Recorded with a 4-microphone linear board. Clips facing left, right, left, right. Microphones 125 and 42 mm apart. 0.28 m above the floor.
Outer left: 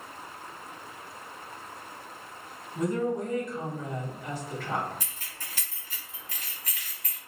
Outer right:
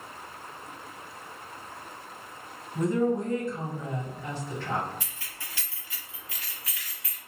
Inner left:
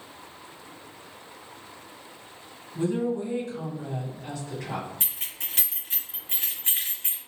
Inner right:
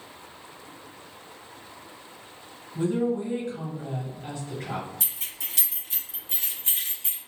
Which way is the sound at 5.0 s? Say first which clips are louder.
Even, inner left 1 dB; 40° left (ahead or behind).